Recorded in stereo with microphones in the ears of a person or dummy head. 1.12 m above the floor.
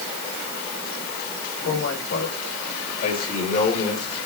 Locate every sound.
1.6 s a man speaking: 65° left (ahead or behind), 5 m; by 4.2 s 40° left (ahead or behind), 3.5 m